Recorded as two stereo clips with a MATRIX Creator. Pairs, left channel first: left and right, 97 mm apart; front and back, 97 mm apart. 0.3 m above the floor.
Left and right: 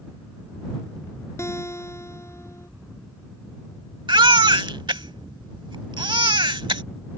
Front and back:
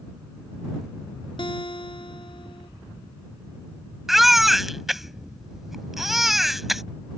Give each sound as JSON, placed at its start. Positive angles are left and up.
{"t": 1.4, "sound": "a guitar", "azimuth_deg": 30}
{"t": 4.1, "sound": "a baby crying", "azimuth_deg": -95}